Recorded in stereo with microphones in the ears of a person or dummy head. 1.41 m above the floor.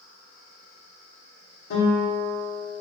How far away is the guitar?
About 1.3 m.